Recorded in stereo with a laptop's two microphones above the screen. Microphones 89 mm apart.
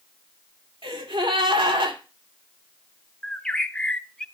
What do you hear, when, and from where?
0.8 s a gasp: 70° right (ahead or behind), 2.5 m
3.2 s a bird: 5° left (ahead or behind), 0.7 m